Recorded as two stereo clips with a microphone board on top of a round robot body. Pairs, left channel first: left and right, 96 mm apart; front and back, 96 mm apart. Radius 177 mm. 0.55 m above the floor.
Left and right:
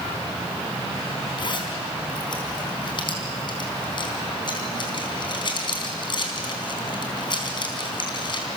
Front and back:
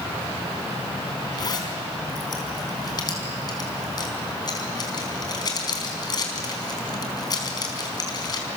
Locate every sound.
1.4 s a zipper: 50° left, 4 m